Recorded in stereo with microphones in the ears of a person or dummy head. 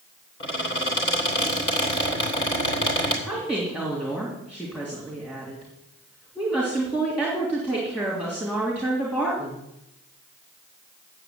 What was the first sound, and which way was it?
A squeak, 30° left (ahead or behind).